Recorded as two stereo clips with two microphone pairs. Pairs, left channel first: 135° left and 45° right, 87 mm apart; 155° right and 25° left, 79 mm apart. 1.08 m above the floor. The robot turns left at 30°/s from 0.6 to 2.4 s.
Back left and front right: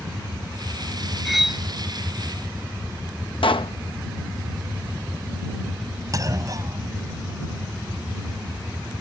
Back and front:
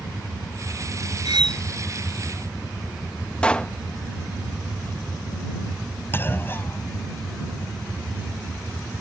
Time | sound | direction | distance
1.2 | cutlery clinking | 50° left | ?
3.4 | a pop | 130° left | ?
6.1 | a clunk | 90° right | ?